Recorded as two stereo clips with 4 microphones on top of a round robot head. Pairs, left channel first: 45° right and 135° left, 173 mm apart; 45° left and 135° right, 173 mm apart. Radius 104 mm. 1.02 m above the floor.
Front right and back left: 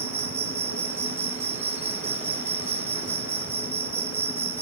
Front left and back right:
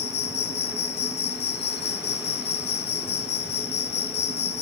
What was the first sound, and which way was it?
An insect, 60° left.